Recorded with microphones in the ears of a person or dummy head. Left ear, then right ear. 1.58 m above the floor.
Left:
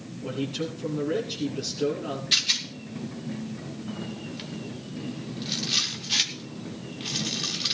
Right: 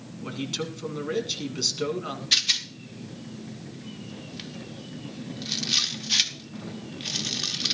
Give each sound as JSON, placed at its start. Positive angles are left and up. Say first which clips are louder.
{"t": 0.2, "sound": "a man speaking", "louder": "left 1 dB", "side_deg": -55, "distance_m": 2.5}
{"t": 2.3, "sound": "a rattle", "louder": "right 1 dB", "side_deg": -15, "distance_m": 0.7}